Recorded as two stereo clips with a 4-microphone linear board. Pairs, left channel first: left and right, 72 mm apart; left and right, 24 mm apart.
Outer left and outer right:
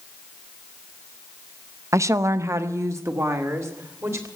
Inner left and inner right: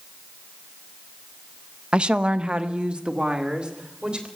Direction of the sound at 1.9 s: 45° right (ahead or behind).